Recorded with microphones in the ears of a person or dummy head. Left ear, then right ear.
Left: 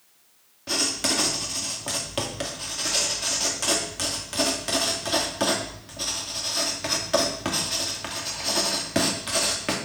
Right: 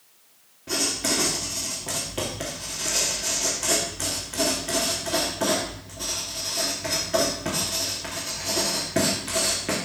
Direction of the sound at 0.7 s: 45° left (ahead or behind).